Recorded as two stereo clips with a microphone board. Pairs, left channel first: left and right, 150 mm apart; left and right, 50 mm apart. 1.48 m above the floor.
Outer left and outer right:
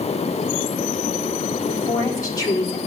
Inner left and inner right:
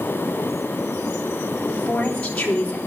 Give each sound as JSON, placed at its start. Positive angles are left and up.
{"t": 1.7, "sound": "a woman speaking", "side_deg": 25, "distance_m": 3.5}